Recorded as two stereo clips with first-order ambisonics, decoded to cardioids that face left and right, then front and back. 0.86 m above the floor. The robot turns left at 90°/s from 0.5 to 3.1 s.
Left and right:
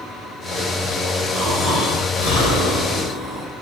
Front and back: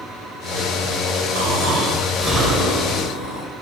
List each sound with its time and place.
1.4 s snoring: 175° right, 2 m; by 3.5 s 25° left, 2 m